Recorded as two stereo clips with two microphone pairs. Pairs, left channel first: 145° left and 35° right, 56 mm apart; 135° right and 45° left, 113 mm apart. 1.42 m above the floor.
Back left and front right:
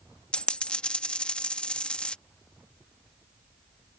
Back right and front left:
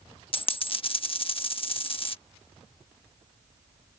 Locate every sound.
0.3 s a dropped coin: 150° right